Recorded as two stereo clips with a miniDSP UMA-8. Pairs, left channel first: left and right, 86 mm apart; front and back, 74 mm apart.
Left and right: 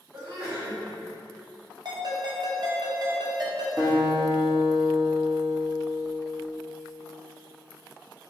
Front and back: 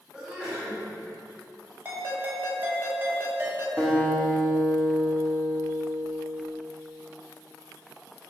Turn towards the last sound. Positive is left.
turn(degrees=-65)